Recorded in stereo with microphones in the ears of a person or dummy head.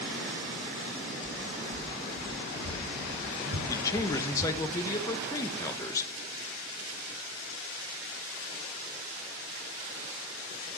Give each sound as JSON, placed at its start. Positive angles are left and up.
{"t": 1.2, "sound": "footsteps", "side_deg": -65, "distance_m": 6.0}
{"t": 3.7, "sound": "a man speaking", "side_deg": 20, "distance_m": 1.0}